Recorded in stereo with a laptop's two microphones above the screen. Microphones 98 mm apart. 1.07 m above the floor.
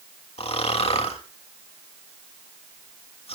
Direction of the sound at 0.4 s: 85° left.